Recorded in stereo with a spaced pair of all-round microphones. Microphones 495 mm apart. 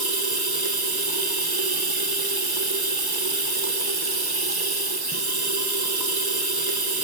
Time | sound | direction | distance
0.0 | running water | 45° right (ahead or behind) | 1.1 m